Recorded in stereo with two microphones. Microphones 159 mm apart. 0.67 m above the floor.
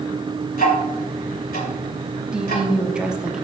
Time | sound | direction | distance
0.5 | ticking | 75° left (ahead or behind) | 2.5 m
2.3 | a woman speaking | 5° right (ahead or behind) | 1.0 m